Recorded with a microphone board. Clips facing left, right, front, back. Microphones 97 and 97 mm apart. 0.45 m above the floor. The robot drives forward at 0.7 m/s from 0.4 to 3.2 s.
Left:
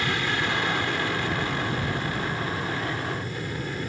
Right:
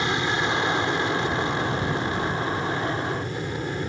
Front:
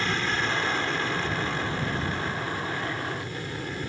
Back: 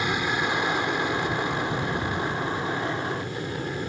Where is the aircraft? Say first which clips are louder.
Right 3 dB, back 2 dB; 125° right; by 3.9 s 130° right.